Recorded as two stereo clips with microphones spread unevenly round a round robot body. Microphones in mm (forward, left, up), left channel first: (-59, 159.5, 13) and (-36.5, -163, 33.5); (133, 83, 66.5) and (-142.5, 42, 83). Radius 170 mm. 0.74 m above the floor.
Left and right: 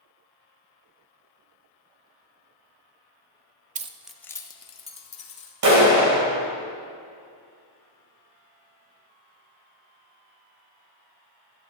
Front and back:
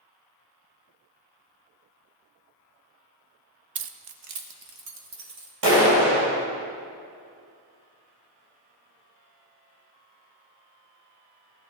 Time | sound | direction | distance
3.8 | keys jangling | 145° right | 0.6 m
5.6 | a clap | 125° right | 3 m